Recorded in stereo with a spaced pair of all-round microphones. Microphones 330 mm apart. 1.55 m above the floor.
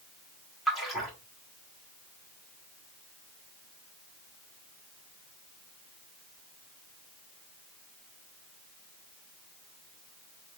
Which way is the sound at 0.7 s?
Centre (ahead or behind).